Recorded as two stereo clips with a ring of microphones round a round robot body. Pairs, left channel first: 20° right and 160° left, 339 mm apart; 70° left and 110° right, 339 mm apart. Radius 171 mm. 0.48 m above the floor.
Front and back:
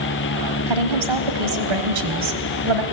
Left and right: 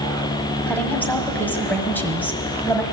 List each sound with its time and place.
0.7 s a woman speaking: 150° left, 2.5 m